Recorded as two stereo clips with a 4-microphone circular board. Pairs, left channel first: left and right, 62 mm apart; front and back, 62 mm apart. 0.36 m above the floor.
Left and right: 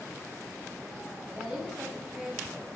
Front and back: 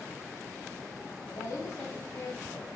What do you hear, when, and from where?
1.3 s a woman speaking: 15° right, 2 m